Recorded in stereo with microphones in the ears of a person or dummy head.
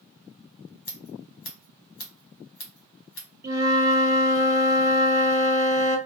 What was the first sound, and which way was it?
Scissors, 55° left (ahead or behind).